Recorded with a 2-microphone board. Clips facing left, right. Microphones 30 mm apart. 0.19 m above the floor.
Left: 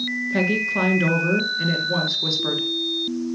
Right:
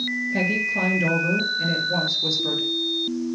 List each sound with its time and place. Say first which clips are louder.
0.3 s a woman speaking: left 2 dB; 45° left (ahead or behind), 3 m